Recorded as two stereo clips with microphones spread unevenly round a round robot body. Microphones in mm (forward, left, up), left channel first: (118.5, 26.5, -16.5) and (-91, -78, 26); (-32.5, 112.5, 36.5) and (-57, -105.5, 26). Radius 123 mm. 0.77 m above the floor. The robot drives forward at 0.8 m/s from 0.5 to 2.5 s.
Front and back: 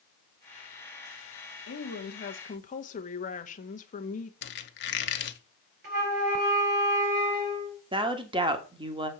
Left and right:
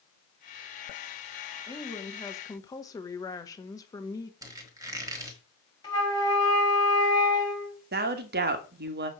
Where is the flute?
155° left, 5.5 m.